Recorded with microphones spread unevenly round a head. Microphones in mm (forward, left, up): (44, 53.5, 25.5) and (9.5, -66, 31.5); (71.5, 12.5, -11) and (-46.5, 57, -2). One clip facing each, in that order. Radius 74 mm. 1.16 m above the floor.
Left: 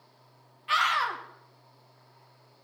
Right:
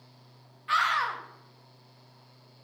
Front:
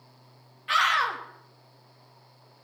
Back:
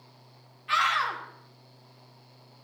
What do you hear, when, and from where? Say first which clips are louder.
0.7 s a scream: even, front 2 dB; straight ahead, 2 m